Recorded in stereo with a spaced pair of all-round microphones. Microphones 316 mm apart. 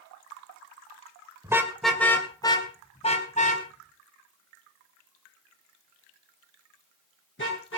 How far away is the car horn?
About 2 m.